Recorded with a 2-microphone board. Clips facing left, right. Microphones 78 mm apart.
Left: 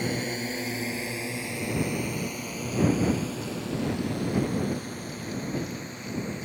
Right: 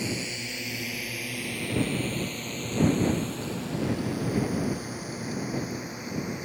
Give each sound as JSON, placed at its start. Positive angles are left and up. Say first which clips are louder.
{"t": 0.0, "sound": "a drone", "louder": "left 3 dB", "side_deg": 45}